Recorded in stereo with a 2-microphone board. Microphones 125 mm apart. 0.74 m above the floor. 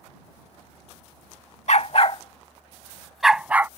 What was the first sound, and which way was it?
A dog barking, 65° left (ahead or behind).